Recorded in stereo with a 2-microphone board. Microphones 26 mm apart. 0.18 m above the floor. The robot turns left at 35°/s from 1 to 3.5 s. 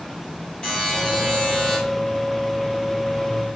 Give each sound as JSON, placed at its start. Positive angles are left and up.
{"t": 0.6, "sound": "a buzzer", "side_deg": 40, "distance_m": 1.4}